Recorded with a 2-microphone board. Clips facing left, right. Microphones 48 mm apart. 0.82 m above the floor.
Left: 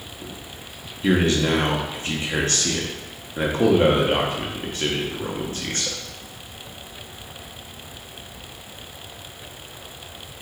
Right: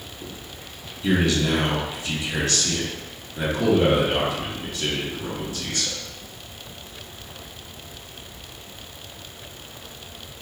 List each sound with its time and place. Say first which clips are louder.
1.0 s a man speaking: left 2 dB; 40° left (ahead or behind), 1.5 m